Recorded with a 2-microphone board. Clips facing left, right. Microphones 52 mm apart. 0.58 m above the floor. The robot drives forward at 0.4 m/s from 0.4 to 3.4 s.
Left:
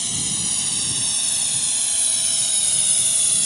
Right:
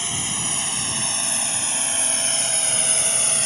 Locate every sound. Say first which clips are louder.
0.0 s a drone: right 2 dB; 35° right (ahead or behind); by 3.5 s 45° right (ahead or behind)